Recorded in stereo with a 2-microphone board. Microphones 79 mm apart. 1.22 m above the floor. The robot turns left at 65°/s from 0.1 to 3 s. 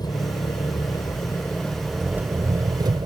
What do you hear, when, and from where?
0.0 s an engine running: 115° left; by 3.1 s 75° right